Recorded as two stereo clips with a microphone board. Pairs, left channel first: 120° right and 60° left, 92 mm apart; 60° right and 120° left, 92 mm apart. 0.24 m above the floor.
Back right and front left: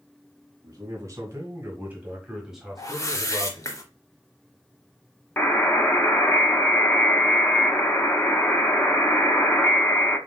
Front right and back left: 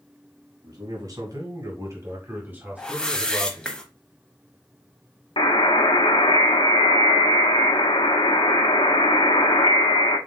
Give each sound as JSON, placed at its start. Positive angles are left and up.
{"t": 0.6, "sound": "a man speaking", "azimuth_deg": 100, "distance_m": 2.0}
{"t": 2.8, "sound": "a whoosh", "azimuth_deg": -135, "distance_m": 0.8}
{"t": 5.4, "sound": "a buzzer", "azimuth_deg": -50, "distance_m": 0.8}